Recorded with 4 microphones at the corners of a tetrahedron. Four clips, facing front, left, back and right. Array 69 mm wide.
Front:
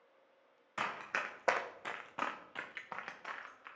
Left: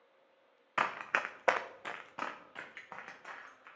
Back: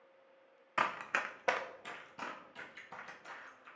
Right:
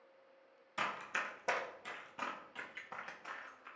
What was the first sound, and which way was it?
Running footsteps, 115° left.